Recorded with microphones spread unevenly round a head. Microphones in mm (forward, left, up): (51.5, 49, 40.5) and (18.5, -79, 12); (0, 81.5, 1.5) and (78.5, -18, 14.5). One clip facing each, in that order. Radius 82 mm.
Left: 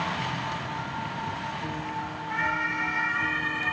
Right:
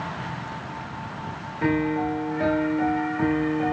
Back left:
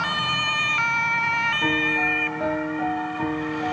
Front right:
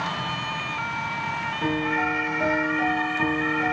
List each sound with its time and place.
1.6 s a piano: 140° right